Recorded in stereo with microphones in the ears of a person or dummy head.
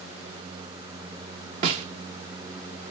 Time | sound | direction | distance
1.6 | a snare drum | 30° right (ahead or behind) | 0.7 m